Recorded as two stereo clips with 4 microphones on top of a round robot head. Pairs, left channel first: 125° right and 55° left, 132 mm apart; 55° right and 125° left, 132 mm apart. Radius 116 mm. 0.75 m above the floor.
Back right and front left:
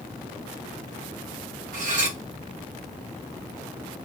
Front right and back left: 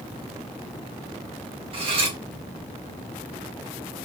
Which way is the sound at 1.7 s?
80° left.